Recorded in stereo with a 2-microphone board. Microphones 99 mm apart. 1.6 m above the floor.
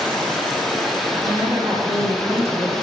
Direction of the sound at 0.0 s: 5° left (ahead or behind).